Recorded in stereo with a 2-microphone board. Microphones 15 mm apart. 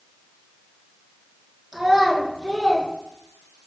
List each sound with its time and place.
1.7 s a child speaking: 30° right (ahead or behind), 1.0 m